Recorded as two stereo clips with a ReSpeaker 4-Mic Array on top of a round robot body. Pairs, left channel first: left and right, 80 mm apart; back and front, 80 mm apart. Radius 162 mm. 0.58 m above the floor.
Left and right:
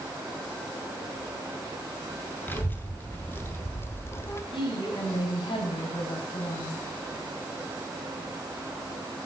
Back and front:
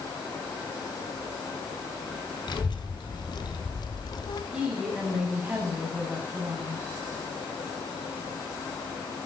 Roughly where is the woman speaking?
Left.